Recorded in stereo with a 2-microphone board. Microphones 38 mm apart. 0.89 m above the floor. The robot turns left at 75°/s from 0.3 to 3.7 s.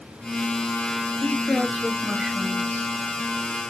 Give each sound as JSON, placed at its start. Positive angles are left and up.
{"t": 1.2, "sound": "a woman speaking", "azimuth_deg": 55, "distance_m": 1.6}